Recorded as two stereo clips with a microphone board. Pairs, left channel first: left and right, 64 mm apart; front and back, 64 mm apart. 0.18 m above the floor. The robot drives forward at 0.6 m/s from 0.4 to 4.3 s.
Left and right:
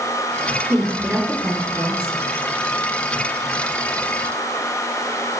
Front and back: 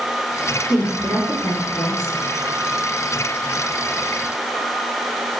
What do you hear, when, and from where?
0.7 s a woman speaking: 15° right, 3.5 m; by 2.2 s 25° right, 2.5 m